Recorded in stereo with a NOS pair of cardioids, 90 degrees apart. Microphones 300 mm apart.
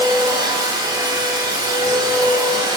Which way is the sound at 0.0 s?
15° right.